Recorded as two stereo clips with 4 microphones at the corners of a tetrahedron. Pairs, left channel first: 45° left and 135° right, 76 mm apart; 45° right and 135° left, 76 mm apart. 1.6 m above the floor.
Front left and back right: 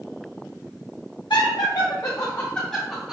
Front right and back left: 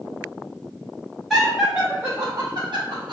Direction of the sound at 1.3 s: 45° left.